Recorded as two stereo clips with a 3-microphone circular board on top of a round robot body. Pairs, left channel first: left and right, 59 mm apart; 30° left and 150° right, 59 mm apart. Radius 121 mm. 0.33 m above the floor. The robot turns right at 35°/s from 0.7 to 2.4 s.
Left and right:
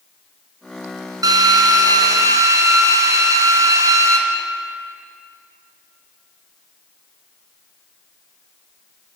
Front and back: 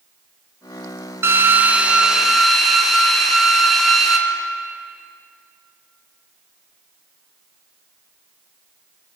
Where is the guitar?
I don't hear a guitar.